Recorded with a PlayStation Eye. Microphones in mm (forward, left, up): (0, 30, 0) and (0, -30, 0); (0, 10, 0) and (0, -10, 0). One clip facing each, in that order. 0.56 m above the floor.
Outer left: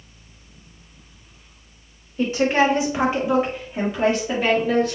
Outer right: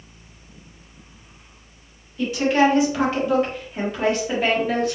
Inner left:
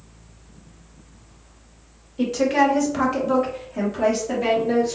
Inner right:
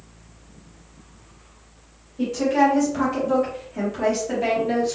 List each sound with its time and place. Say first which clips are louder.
2.2 s a woman speaking: even, even; 35° left (ahead or behind), 1.4 m; by 5.0 s 10° right (ahead or behind), 1.4 m